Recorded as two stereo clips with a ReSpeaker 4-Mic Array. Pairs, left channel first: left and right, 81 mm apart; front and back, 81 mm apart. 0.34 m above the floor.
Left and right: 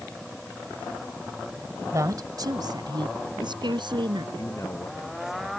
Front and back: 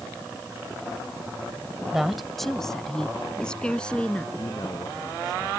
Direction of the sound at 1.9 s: 95° right.